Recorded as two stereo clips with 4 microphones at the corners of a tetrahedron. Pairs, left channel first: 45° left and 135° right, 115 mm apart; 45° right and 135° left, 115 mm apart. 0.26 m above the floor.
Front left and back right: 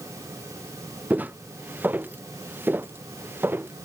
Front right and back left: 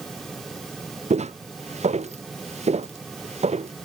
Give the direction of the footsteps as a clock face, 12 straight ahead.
7 o'clock.